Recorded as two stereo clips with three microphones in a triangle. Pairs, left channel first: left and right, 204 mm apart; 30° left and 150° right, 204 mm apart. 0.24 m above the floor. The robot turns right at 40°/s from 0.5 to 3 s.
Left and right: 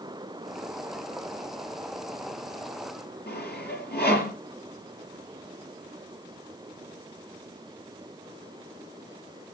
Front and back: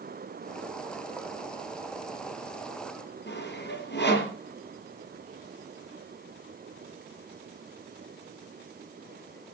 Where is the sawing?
55° left, 5.5 m.